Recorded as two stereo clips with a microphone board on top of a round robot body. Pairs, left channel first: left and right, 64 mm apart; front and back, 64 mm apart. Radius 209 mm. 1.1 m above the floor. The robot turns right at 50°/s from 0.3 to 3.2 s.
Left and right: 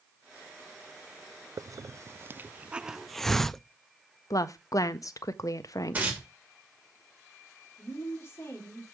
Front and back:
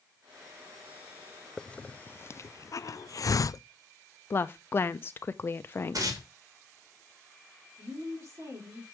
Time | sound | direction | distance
1.6 | a hiss | 75° right | 0.6 m
4.3 | a woman speaking | 55° left | 0.6 m
5.9 | tearing paper | 160° right | 2.5 m
7.8 | a woman speaking | 140° left | 3 m